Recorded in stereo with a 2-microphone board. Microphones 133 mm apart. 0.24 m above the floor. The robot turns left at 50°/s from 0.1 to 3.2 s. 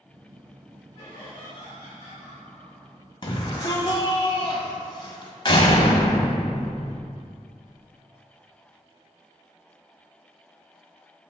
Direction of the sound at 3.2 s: 40° left (ahead or behind).